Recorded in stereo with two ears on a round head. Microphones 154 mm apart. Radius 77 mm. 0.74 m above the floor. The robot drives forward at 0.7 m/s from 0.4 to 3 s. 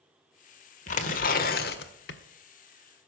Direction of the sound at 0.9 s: 45° left (ahead or behind).